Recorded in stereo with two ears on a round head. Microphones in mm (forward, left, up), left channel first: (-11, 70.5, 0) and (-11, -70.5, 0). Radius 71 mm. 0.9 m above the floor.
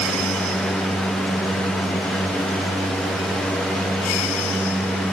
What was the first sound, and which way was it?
Only background noise.